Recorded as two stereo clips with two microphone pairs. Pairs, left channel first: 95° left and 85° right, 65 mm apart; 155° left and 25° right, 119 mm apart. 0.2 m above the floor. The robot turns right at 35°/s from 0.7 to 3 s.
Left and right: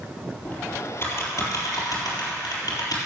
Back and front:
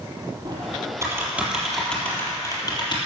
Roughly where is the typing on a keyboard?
Ahead left.